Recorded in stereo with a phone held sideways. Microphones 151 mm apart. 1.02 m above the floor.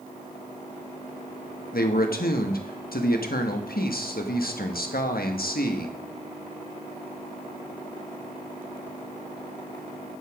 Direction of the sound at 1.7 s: 80° left.